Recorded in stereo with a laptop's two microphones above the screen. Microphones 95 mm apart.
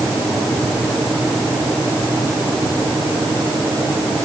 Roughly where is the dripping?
No dripping in this recording.